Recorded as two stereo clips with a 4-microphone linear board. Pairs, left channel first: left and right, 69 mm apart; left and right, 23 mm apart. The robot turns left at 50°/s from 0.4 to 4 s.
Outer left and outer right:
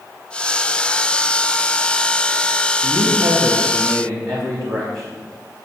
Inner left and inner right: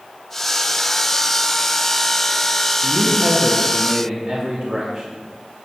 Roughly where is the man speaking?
Ahead right.